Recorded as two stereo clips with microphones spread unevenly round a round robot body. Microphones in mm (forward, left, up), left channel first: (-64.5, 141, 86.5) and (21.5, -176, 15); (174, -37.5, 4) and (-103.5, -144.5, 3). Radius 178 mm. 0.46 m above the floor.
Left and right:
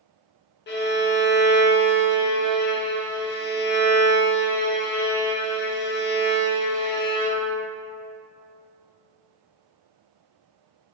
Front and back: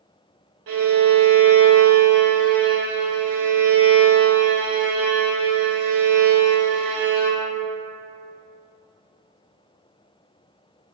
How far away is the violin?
About 0.6 m.